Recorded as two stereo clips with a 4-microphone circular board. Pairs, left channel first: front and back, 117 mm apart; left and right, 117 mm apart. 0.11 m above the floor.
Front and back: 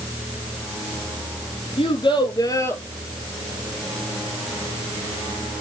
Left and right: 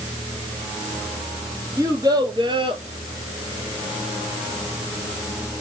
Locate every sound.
1.8 s a child speaking: 30° right, 1.8 m; by 2.8 s 70° right, 1.2 m